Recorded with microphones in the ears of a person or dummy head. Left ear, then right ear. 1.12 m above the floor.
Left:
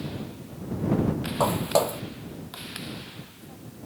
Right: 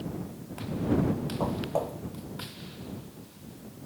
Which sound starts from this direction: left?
Footsteps, at 1.4 s.